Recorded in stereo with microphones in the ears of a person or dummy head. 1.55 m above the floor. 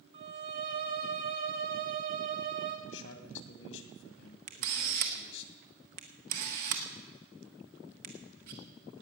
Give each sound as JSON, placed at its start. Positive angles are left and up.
{"t": 0.1, "sound": "a violin", "side_deg": -30, "distance_m": 0.9}
{"t": 2.9, "sound": "a man speaking", "side_deg": 75, "distance_m": 1.9}
{"t": 4.5, "sound": "a camera shutter", "side_deg": -50, "distance_m": 1.4}